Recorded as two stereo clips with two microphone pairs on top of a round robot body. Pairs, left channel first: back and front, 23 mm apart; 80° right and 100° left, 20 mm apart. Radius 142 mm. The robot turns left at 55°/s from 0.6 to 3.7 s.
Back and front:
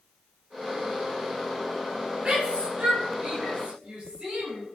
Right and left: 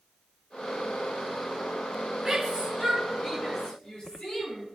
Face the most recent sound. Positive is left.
turn(degrees=-50)